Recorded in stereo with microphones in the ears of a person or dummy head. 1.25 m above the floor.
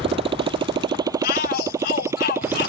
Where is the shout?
55° left (ahead or behind).